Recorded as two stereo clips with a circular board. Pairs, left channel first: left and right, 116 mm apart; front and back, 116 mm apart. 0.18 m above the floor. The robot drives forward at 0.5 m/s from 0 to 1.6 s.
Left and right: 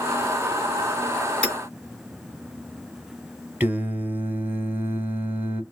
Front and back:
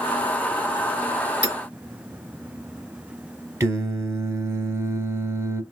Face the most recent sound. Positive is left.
turn(degrees=-145)